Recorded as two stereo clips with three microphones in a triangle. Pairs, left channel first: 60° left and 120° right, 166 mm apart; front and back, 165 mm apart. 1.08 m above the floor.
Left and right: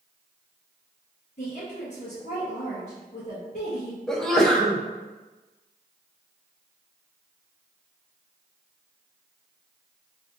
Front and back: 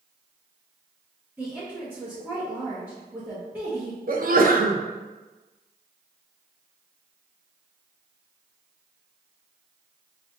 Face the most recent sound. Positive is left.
turn(degrees=145)